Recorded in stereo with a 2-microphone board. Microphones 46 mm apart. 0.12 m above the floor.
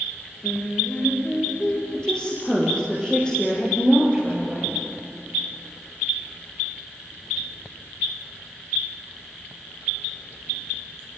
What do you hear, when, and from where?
0.4 s singing: 25° left (ahead or behind), 8 m
1.9 s a woman speaking: 20° left (ahead or behind), 5.5 m